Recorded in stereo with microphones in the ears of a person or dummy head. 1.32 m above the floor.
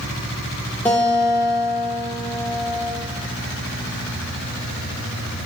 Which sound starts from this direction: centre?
A guitar, at 0.8 s.